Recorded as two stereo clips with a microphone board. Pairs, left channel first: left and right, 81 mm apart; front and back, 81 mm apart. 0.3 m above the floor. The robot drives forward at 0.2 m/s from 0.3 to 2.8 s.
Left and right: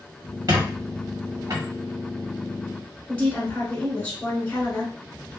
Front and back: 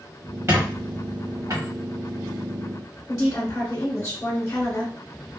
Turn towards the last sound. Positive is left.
turn(degrees=40)